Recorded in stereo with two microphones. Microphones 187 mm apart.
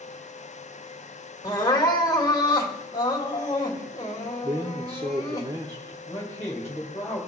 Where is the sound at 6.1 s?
15° left (ahead or behind), 2 m.